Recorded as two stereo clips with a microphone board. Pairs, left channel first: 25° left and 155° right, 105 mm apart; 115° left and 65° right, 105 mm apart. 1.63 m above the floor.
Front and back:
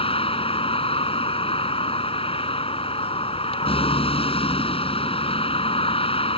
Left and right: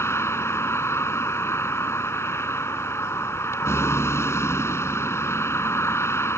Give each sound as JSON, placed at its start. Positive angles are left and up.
{"t": 0.0, "sound": "a vehicle", "azimuth_deg": 45}